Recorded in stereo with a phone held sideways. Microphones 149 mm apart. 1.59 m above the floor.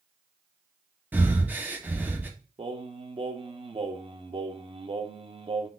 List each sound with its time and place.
1.1 s breathing: 10° right (ahead or behind), 0.7 m
2.6 s singing: 35° right (ahead or behind), 0.5 m